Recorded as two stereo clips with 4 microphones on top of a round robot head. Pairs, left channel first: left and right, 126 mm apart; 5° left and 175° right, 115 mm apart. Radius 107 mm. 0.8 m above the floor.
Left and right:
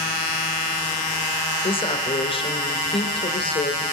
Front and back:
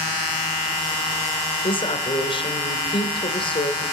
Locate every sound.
1.6 s a woman speaking: 45° left, 3 m